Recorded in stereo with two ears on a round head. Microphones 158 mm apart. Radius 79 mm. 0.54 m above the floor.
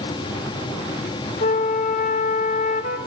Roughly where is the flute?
Left.